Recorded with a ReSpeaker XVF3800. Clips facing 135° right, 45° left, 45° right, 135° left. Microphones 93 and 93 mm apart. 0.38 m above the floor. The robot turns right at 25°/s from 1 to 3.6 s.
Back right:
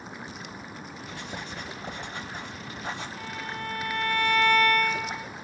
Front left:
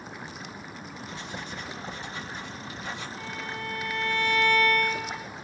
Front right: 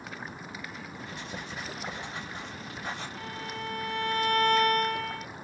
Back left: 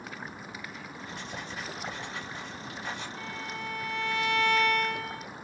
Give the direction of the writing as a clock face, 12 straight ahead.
5 o'clock.